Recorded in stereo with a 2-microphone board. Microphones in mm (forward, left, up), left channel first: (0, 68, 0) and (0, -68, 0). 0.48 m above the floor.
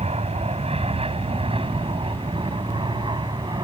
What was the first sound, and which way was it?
An aircraft, 50° right (ahead or behind).